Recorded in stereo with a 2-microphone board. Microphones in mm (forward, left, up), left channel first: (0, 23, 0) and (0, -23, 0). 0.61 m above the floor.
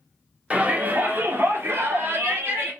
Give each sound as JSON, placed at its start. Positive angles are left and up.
{"t": 0.5, "sound": "a shout", "side_deg": -30, "distance_m": 1.4}